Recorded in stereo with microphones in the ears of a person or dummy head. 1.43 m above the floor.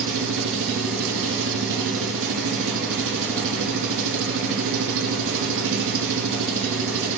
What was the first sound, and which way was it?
An engine running, 70° right (ahead or behind).